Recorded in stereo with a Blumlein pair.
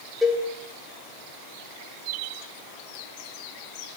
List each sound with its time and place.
0.2 s a cowbell: 5° left, 0.8 m